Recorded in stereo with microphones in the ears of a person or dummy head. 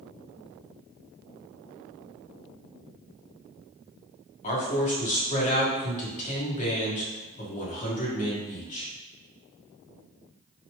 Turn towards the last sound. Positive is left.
turn(degrees=40)  # may be behind; listen again after turning